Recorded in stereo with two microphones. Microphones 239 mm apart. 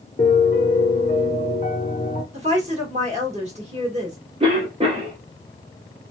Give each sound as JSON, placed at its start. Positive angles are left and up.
{"t": 0.2, "sound": "a piano", "side_deg": 30, "distance_m": 0.6}
{"t": 2.3, "sound": "a woman speaking", "side_deg": -30, "distance_m": 1.5}
{"t": 4.4, "sound": "a cough", "side_deg": -25, "distance_m": 1.0}